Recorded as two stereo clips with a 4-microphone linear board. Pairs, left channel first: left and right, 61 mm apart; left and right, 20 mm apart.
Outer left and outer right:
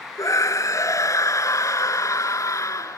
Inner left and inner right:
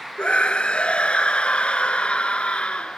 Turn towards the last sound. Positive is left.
turn(degrees=60)  # may be behind; listen again after turning